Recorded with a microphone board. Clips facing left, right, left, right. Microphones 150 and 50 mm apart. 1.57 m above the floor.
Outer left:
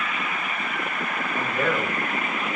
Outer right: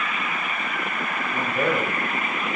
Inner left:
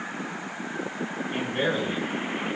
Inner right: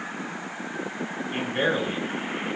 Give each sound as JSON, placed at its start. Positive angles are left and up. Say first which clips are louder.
{"t": 1.3, "sound": "a man speaking", "louder": "outer right 2 dB, inner right 2 dB", "side_deg": -15, "distance_m": 6.0}